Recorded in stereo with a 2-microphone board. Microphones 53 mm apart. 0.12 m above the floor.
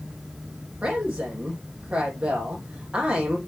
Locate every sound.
0.8 s a woman speaking: 20° right (ahead or behind), 5.5 m